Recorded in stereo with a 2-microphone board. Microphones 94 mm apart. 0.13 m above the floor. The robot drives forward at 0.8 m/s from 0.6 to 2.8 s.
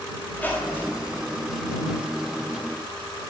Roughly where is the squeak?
Centre.